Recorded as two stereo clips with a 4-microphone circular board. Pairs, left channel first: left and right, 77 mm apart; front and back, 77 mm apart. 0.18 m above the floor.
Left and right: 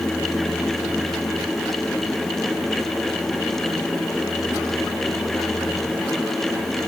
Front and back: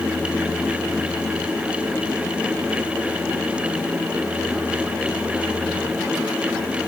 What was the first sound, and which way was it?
Only background noise.